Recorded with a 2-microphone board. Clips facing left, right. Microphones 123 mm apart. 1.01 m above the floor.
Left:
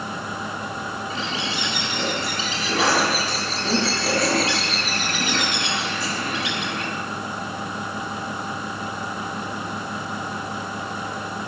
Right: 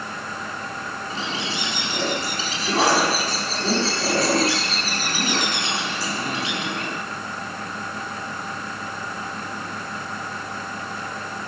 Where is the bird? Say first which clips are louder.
Right 2 dB; 35° right (ahead or behind), 5.5 m.